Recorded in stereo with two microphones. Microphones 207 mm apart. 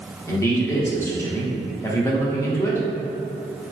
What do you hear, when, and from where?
0.3 s a man speaking: 15° left (ahead or behind), 0.8 m